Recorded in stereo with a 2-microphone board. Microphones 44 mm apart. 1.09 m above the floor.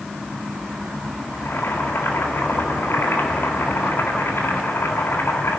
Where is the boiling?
75° left (ahead or behind), 4 m.